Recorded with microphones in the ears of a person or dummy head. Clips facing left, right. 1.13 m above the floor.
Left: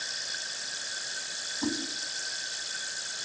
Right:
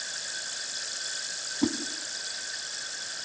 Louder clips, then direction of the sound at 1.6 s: Right 4 dB; 45° right (ahead or behind).